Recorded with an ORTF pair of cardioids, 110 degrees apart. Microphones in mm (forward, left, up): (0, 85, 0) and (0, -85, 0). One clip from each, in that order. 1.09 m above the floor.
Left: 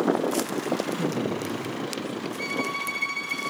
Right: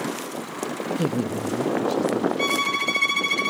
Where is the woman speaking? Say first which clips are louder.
Right 2 dB; 30° right, 1.0 m; by 2.3 s 50° right, 1.9 m.